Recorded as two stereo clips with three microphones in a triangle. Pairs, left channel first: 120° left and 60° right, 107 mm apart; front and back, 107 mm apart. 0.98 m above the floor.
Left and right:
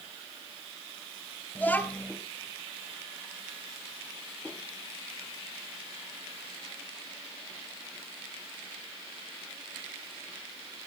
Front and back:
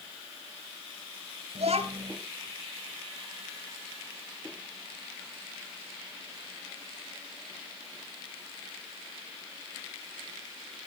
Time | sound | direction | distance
1.6 | a child speaking | 170° right | 2.5 m